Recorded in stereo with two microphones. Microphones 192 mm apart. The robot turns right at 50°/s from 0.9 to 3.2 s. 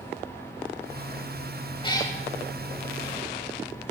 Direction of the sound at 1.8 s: 25° left (ahead or behind).